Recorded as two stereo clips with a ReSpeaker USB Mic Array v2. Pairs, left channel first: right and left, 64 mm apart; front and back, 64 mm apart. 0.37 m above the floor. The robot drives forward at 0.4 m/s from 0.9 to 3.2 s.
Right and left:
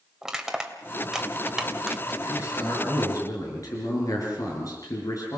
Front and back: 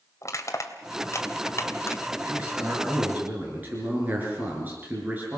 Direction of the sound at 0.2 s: 10° left.